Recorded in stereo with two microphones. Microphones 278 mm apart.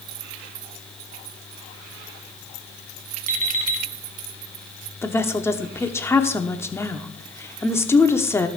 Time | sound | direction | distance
3.3 | an alarm clock | 30° right (ahead or behind) | 2 m
5.0 | a woman speaking | 10° left (ahead or behind) | 1.0 m